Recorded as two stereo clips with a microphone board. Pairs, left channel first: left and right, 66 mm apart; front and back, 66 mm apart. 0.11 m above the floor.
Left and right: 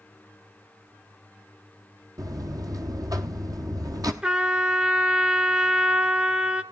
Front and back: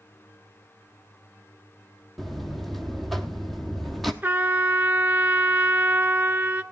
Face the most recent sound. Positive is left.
turn(degrees=-145)